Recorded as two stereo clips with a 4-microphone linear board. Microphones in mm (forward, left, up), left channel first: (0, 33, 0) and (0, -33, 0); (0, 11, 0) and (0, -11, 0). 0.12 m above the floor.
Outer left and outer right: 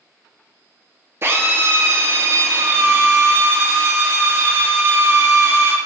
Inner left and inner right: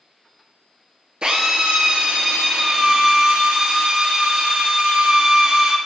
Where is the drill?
40° right (ahead or behind), 0.8 m.